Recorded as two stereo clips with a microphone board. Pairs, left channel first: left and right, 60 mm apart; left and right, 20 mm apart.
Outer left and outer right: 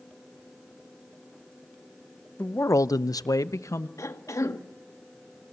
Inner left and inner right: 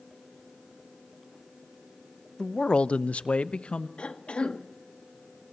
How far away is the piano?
No piano in this recording.